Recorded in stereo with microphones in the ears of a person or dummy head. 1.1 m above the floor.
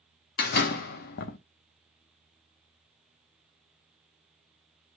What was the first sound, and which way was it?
A door slam, 55° left (ahead or behind).